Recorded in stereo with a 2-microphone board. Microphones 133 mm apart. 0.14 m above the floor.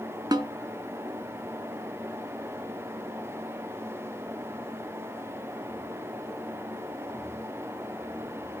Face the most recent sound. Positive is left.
turn(degrees=-30)  # may be behind; listen again after turning